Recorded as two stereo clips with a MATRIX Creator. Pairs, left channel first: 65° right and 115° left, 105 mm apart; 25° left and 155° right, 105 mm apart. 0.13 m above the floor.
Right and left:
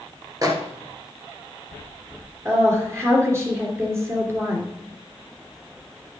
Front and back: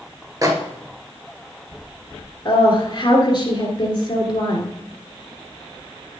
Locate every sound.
0.4 s a microwave: 155° left, 1.6 m
2.5 s a woman speaking: 55° left, 2.5 m